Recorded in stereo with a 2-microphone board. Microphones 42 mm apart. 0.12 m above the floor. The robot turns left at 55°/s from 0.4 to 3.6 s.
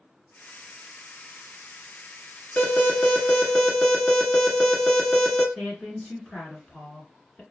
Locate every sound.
2.6 s an alarm: 80° left, 1.1 m; by 5.5 s 25° left, 1.1 m
5.5 s a woman speaking: 15° left (ahead or behind), 1.5 m